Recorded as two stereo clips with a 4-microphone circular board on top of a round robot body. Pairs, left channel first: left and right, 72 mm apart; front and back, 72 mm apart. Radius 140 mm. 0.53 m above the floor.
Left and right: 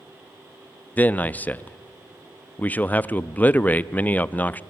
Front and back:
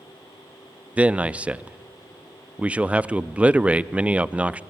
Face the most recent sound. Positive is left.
turn(degrees=125)